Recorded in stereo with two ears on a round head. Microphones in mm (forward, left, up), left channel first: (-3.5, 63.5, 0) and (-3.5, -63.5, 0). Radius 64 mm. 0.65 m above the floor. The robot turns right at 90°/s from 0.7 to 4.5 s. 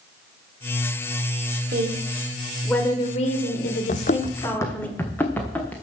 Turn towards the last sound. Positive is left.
turn(degrees=10)  # may be behind; listen again after turning